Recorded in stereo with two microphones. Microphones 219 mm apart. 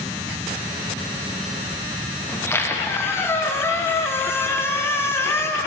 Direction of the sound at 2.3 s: 10° left (ahead or behind).